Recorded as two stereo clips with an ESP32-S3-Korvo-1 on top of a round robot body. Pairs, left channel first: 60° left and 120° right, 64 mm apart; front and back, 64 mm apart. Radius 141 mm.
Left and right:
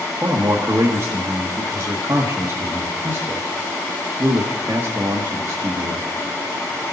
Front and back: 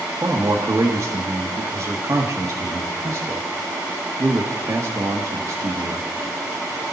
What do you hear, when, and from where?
0.2 s a man speaking: 150° right, 1.3 m